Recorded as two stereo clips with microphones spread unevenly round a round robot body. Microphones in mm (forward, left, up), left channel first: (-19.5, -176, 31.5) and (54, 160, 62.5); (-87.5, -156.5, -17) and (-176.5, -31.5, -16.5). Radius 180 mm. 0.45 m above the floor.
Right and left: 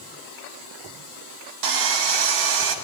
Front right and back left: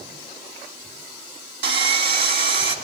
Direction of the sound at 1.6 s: 115° left.